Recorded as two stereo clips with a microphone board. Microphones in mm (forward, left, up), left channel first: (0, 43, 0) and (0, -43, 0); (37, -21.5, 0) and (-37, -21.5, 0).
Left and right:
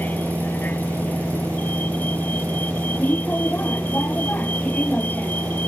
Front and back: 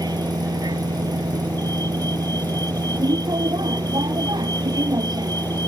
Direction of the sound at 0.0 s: 160° left.